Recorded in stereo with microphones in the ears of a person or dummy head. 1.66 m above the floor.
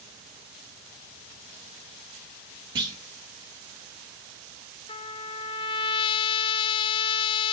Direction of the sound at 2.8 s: 20° right (ahead or behind).